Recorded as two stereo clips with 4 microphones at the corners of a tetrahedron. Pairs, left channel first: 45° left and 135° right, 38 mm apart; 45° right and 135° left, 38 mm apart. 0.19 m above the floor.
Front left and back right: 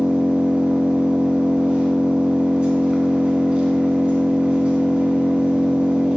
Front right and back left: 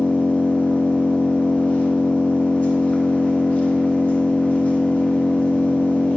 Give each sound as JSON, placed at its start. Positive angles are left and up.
{"t": 0.0, "sound": "an engine running", "azimuth_deg": -80, "distance_m": 0.9}